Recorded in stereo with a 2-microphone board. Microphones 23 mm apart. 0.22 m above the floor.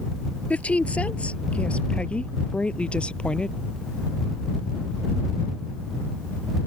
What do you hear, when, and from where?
0.5 s a woman speaking: 70° left (ahead or behind); by 3.6 s 45° left (ahead or behind)